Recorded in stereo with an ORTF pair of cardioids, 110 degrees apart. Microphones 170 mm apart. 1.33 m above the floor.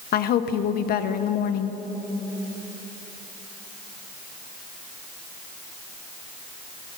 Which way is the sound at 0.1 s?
65° left.